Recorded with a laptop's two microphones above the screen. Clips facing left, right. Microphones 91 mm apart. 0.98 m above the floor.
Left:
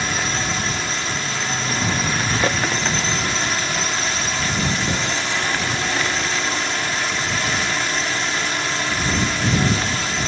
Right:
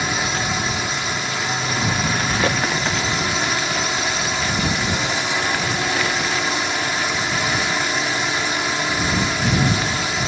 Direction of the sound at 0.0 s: 10° right (ahead or behind).